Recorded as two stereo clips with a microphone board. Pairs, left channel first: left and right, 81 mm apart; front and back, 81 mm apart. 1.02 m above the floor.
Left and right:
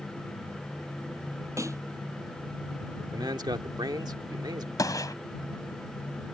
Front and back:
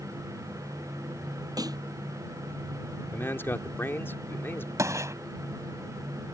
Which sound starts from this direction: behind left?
A gunshot, at 4.8 s.